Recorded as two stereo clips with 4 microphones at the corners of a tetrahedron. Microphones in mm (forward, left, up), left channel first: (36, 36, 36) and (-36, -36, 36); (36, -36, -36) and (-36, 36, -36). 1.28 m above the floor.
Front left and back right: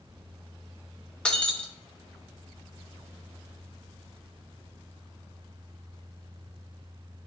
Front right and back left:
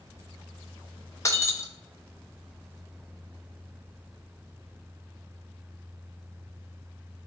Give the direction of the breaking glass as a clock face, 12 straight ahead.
1 o'clock.